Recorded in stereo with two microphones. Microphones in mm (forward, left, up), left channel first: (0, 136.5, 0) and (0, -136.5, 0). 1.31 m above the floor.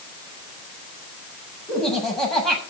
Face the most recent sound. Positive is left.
turn(degrees=0)  # may be behind; listen again after turning